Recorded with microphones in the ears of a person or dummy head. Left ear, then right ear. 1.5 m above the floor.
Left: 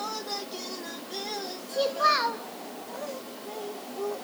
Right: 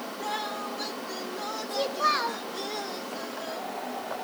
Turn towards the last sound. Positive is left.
turn(degrees=0)  # may be behind; listen again after turning